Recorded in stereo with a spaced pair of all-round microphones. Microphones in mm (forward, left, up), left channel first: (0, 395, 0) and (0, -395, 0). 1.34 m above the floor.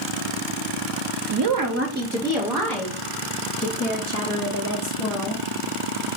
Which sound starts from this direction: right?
A woman speaking, at 1.3 s.